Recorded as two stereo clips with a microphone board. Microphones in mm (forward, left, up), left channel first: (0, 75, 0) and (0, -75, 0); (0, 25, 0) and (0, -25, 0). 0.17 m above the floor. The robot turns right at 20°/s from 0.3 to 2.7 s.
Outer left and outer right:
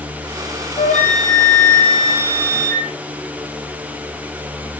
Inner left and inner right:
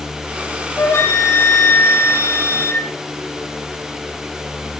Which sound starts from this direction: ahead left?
A flute, at 0.8 s.